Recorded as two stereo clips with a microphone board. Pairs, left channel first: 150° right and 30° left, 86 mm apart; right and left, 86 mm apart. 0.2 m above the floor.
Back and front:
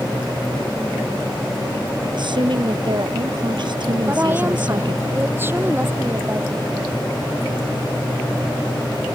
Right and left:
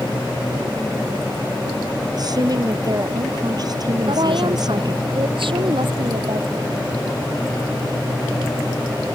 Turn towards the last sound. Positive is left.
turn(degrees=95)